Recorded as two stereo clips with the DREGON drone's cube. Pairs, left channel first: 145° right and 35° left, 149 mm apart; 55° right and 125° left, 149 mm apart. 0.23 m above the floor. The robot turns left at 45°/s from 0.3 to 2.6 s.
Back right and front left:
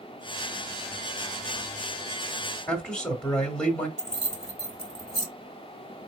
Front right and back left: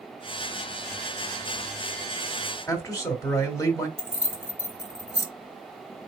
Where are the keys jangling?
Straight ahead, 1.5 m.